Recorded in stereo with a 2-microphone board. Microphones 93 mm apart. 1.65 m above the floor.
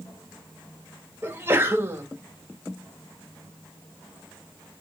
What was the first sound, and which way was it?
A sneeze, 25° right (ahead or behind).